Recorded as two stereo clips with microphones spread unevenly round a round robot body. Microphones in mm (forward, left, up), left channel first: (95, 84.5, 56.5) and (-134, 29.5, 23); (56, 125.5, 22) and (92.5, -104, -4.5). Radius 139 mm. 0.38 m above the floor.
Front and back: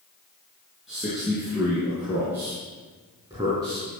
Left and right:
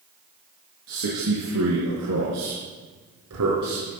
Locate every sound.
0.9 s a man speaking: 80° right, 5 m; by 3.9 s 95° right, 4 m